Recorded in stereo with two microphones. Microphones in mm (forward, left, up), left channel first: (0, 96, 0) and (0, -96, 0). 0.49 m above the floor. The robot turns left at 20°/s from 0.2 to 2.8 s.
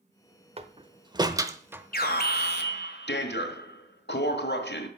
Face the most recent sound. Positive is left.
turn(degrees=70)  # may be behind; listen again after turning